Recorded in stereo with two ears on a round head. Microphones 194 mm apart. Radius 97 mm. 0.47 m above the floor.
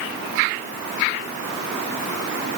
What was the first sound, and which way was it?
Only background noise.